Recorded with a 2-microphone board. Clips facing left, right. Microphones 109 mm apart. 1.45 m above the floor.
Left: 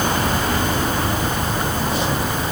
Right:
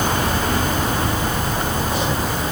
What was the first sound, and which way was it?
Only background noise.